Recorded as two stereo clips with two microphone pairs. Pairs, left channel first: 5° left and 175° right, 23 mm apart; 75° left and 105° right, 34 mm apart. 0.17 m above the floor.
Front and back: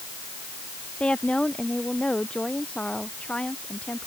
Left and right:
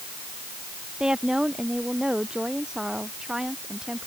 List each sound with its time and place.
1.0 s a woman speaking: 35° right; by 4.1 s 30° right